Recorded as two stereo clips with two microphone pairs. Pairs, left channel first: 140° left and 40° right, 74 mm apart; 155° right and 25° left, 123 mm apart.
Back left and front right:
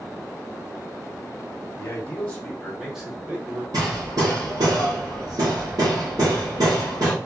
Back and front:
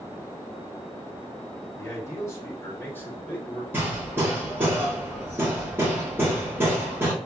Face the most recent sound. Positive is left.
turn(degrees=-40)